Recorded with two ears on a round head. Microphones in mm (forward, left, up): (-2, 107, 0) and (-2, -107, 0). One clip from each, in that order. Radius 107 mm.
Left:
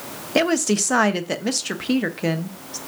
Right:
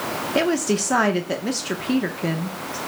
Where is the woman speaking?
20° left (ahead or behind), 0.8 m.